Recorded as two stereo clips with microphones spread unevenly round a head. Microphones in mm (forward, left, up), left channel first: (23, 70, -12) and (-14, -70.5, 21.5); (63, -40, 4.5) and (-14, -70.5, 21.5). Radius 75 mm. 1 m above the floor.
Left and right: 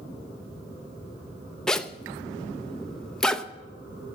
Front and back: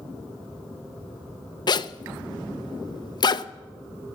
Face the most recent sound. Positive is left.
turn(degrees=-10)